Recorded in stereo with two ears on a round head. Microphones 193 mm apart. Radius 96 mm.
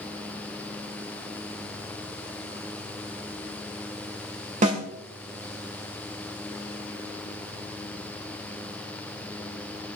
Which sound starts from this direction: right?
A snare drum, at 4.6 s.